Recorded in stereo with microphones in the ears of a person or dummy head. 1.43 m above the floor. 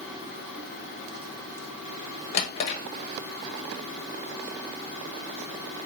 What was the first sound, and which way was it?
A drawer, 35° left (ahead or behind).